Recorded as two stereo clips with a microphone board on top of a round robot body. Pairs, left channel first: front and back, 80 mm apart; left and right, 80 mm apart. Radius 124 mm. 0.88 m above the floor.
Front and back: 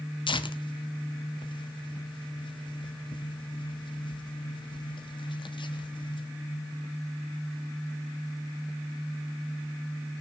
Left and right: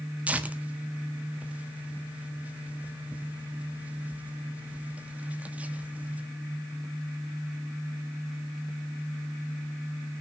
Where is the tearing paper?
20° right, 1.4 m.